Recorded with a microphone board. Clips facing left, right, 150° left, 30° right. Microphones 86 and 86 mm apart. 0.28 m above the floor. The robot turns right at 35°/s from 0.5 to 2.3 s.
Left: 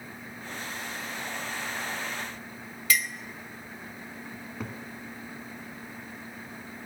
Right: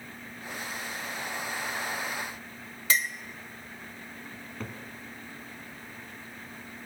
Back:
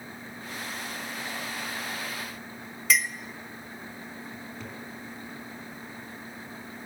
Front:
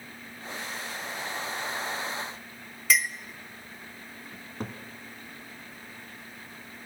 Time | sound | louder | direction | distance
2.9 | a clink | even, even | 120° right | 0.5 m
4.3 | a cupboard door | left 2 dB, front 1 dB | 10° left | 1.4 m